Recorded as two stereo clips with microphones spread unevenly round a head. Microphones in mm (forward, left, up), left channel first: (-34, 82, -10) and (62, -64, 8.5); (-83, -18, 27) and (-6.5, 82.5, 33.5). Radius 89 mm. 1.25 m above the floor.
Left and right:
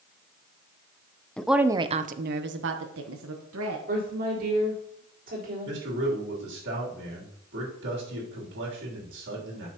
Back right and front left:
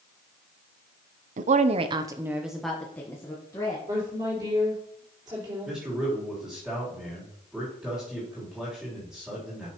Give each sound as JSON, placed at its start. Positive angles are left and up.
{"t": 1.4, "sound": "a woman speaking", "azimuth_deg": 45, "distance_m": 0.6}
{"t": 3.9, "sound": "a woman speaking", "azimuth_deg": -15, "distance_m": 4.0}
{"t": 5.7, "sound": "a man speaking", "azimuth_deg": -35, "distance_m": 3.0}